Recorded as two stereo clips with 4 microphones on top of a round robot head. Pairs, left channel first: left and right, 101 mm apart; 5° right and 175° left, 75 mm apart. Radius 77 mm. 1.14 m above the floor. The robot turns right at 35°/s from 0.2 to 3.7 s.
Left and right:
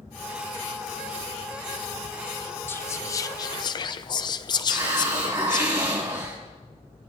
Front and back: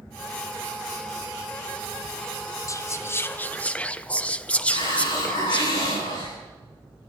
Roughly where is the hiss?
Ahead right.